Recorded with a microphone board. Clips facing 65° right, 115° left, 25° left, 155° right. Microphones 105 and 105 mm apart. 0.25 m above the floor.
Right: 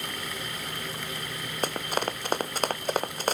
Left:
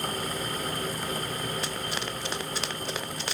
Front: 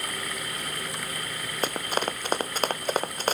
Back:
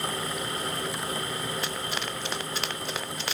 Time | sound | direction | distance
1.6 | running footsteps | 25° right | ?